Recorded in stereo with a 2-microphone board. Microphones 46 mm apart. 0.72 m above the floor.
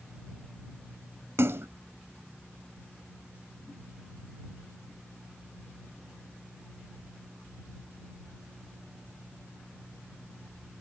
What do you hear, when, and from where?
1.4 s a splash: 70° right (ahead or behind)